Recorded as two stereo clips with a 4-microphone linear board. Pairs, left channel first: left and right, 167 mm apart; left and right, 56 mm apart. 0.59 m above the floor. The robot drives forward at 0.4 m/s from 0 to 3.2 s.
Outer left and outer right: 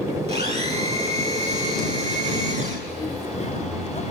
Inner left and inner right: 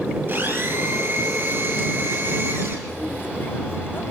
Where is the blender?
40° right (ahead or behind), 9 m; by 2.8 s 45° right (ahead or behind), 8 m.